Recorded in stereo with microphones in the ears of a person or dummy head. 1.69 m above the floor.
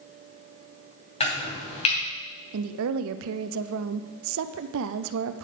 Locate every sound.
1.2 s chopping: 35° left (ahead or behind), 2.5 m
2.5 s a woman speaking: 70° right (ahead or behind), 0.5 m